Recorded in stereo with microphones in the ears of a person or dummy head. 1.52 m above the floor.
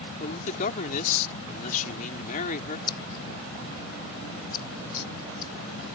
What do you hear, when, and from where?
0.2 s a man speaking: 45° left (ahead or behind)
2.9 s scissors: 20° left (ahead or behind)